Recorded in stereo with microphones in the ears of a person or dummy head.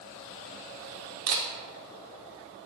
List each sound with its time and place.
1.3 s a camera shutter: 55° right (ahead or behind), 0.7 m